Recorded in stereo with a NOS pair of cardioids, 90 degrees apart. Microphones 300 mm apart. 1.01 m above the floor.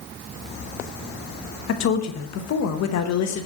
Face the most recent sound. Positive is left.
turn(degrees=65)